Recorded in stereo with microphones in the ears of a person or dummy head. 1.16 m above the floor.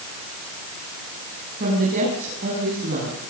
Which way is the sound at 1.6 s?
50° right (ahead or behind).